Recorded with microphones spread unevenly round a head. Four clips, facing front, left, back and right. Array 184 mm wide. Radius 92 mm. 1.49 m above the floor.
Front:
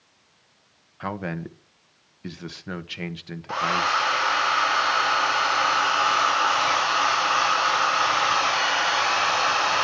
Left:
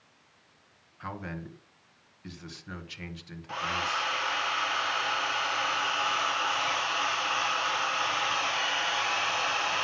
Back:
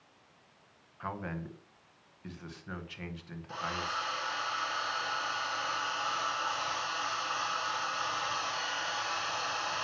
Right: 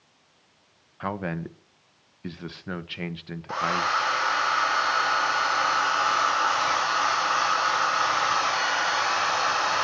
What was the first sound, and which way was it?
A man speaking, 45° right.